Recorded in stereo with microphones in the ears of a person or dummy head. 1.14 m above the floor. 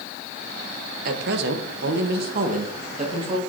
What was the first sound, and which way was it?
A man speaking, 55° right (ahead or behind).